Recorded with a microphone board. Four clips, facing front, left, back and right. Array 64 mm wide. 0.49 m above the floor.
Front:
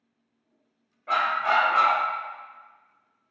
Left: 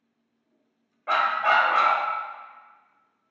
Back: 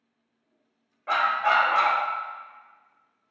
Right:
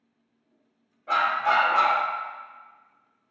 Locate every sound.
1.1 s a dog barking: 120° left, 0.6 m